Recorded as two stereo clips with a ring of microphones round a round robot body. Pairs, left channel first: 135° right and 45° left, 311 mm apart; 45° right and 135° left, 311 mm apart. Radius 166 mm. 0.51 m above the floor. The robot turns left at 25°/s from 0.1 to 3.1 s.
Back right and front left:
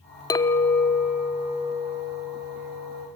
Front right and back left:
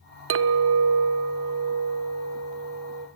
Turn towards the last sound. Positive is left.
turn(degrees=80)